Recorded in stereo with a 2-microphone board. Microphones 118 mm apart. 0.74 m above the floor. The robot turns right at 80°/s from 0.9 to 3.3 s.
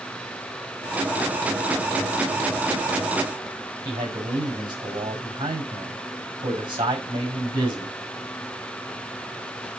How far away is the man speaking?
About 5.5 m.